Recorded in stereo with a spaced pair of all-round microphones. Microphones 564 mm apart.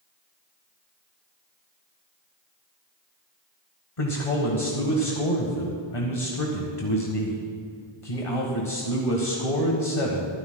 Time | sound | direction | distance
4.0 | a man speaking | 70° left (ahead or behind) | 1.4 m